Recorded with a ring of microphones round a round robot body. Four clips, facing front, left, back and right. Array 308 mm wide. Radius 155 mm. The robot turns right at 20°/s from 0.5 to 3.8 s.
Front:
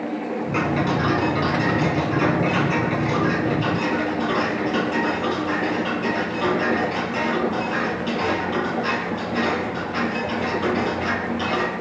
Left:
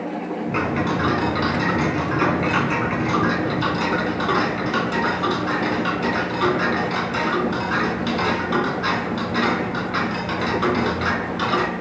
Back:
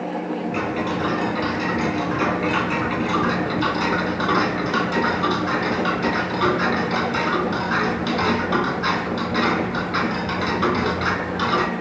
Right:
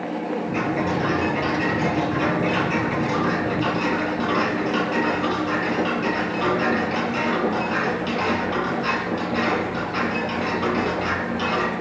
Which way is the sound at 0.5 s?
75° left.